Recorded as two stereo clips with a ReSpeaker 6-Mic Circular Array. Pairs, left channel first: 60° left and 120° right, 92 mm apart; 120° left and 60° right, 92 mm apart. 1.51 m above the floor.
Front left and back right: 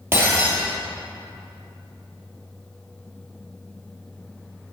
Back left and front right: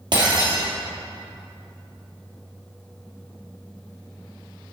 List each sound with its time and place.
0.1 s breaking glass: 60° right, 2.5 m